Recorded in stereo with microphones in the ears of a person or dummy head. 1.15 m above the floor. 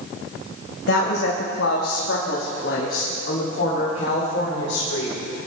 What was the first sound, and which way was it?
A woman speaking, 80° left.